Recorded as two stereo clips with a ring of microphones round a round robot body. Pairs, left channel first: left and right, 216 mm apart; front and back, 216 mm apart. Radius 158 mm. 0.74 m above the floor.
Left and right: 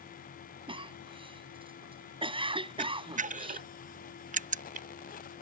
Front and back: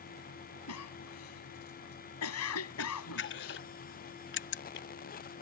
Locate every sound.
0.7 s a cough: 25° right
2.8 s a camera shutter: 35° right